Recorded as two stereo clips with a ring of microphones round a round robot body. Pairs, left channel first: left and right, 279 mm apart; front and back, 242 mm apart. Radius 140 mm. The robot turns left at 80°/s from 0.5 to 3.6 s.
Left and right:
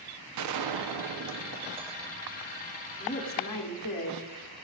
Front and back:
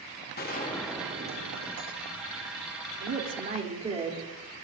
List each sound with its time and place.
0.4 s a gunshot: 60° right, 1.0 m; by 2.6 s 135° left, 1.0 m
3.0 s a woman speaking: 160° left, 3 m; by 4.2 s 115° left, 3 m